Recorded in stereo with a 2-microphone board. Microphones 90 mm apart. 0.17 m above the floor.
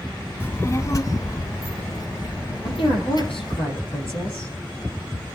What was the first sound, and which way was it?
A child speaking, 25° left (ahead or behind).